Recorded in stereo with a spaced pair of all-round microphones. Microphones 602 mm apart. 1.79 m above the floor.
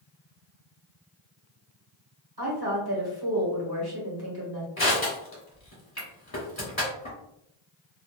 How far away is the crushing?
About 1.5 m.